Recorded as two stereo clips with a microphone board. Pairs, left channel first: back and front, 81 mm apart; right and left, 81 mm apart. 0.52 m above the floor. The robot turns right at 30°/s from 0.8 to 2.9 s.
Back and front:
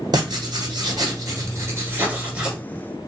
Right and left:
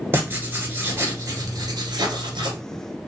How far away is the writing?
About 1.6 m.